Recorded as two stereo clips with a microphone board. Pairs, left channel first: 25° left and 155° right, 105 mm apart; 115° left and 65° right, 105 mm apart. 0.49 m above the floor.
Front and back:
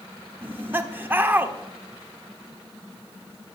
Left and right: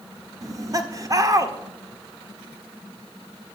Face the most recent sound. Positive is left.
turn(degrees=-95)